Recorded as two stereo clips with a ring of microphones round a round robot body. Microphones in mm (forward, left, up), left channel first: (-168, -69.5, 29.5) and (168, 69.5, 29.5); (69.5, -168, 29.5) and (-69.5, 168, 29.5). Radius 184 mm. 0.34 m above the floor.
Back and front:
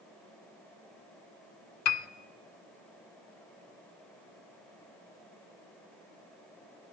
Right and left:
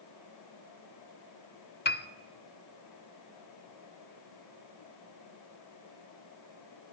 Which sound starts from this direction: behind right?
A piano, at 1.9 s.